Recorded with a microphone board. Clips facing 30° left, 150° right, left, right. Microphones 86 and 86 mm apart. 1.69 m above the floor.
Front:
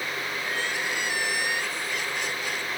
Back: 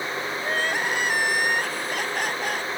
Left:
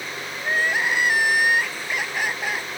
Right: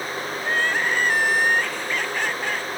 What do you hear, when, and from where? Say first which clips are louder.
0.4 s crying: back 6 dB, left 1 dB; 170° left